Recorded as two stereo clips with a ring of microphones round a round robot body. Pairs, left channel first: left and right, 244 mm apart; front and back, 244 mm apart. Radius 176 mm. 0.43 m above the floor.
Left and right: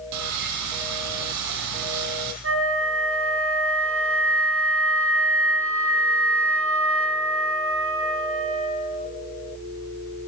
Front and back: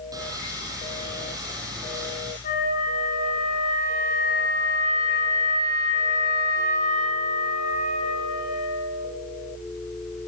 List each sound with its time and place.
0.1 s sawing: 100° right, 5 m
2.4 s a flute: 65° right, 5.5 m